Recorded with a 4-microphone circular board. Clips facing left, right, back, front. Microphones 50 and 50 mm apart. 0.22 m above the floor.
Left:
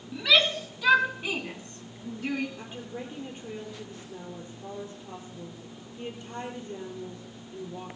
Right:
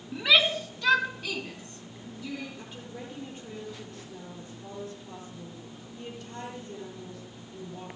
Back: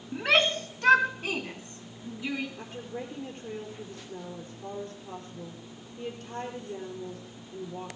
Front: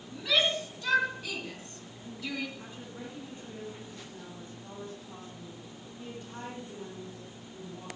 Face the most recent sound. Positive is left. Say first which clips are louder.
# left 3 dB, back 5 dB
turn(degrees=160)